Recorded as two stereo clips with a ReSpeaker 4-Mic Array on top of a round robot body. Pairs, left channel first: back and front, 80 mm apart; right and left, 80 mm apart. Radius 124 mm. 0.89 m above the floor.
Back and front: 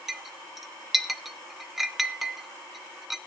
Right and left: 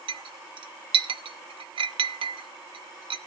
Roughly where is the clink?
Left.